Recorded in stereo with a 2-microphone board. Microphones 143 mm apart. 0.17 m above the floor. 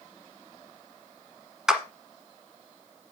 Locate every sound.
1.7 s a clap: 5° right (ahead or behind), 1.6 m